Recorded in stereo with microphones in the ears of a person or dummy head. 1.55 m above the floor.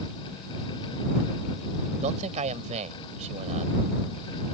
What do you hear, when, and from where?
2.0 s a man speaking: 40° right (ahead or behind)